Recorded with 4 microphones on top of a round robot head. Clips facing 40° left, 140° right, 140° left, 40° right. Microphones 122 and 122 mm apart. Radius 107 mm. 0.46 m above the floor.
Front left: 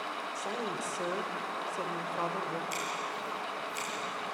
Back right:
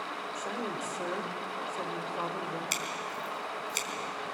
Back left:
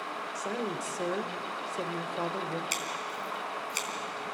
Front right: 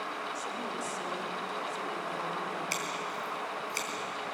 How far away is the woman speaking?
About 2 m.